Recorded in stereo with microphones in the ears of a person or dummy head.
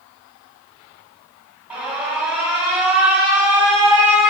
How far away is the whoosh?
No whoosh in this recording.